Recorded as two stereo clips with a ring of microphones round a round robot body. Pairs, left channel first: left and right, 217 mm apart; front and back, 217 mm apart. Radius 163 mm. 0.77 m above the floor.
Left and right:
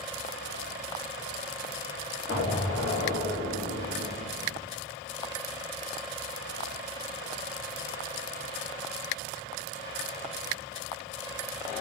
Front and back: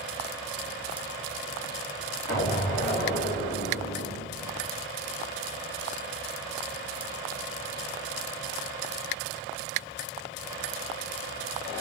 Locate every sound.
2.3 s an explosion: 145° right, 1.9 m